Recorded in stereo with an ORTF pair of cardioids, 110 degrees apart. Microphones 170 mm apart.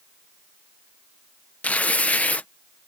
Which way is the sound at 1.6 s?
10° left.